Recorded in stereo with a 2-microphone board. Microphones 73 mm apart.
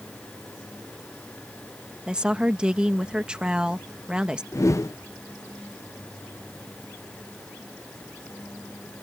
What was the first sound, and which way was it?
A woman speaking, 15° right (ahead or behind).